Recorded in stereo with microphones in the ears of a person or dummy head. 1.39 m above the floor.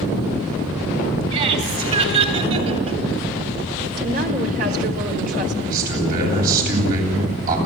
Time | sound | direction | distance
1.3 | laughter | 35° right (ahead or behind) | 6.5 m
4.0 | a woman speaking | 50° right (ahead or behind) | 4 m
5.6 | a man speaking | 55° right (ahead or behind) | 9.5 m